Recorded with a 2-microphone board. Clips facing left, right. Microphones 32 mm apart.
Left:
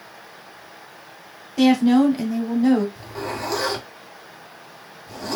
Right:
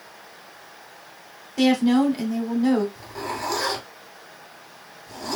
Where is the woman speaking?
5° left (ahead or behind), 1.4 m.